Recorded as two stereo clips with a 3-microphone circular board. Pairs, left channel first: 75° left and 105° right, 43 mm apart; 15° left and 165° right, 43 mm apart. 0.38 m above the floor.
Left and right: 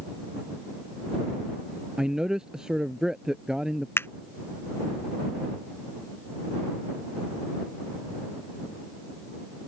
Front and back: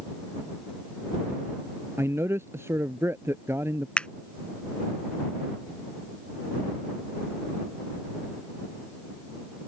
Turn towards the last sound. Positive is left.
turn(degrees=80)